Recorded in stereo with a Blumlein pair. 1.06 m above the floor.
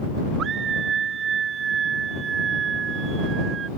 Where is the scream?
25° right; by 3.7 s 20° right.